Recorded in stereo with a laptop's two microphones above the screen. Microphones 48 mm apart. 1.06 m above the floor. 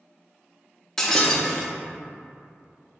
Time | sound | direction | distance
1.0 | breaking glass | 10° left (ahead or behind) | 0.6 m